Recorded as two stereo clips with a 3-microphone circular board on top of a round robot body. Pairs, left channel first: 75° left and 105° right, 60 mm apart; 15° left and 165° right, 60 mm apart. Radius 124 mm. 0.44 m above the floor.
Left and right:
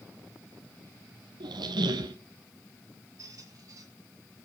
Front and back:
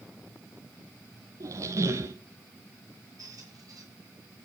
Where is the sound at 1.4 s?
120° right, 0.6 m.